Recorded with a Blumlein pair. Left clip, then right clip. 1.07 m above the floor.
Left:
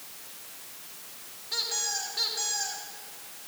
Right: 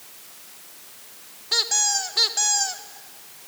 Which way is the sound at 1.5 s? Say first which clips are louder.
Right 9 dB; 60° right.